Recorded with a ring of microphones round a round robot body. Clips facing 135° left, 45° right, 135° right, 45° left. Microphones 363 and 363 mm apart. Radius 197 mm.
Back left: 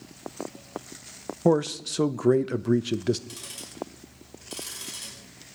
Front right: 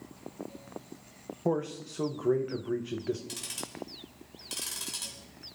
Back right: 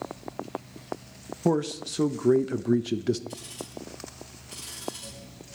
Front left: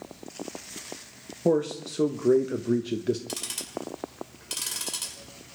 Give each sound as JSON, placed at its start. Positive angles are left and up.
{"t": 1.4, "sound": "a man speaking", "azimuth_deg": 155, "distance_m": 0.7}
{"t": 3.3, "sound": "ticking", "azimuth_deg": 35, "distance_m": 2.5}